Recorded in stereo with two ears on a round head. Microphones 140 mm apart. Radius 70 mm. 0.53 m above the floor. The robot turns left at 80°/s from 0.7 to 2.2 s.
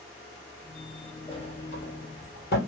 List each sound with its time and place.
1.3 s a sliding door: 30° left (ahead or behind), 1.8 m; by 2.6 s 70° left (ahead or behind), 1.8 m